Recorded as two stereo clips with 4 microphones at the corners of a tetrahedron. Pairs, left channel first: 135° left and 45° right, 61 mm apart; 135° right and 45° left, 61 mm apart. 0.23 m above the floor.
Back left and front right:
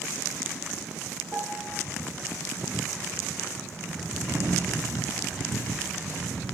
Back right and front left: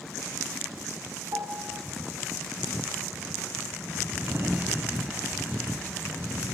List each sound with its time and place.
1.3 s a piano: 20° left, 3 m
4.3 s a sliding door: straight ahead, 5 m